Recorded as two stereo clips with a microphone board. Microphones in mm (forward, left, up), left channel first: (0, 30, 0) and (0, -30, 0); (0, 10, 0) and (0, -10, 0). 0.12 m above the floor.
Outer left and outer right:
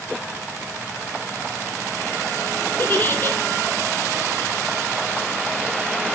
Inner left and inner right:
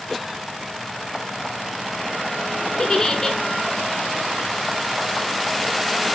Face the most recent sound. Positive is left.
turn(degrees=35)  # may be behind; listen again after turning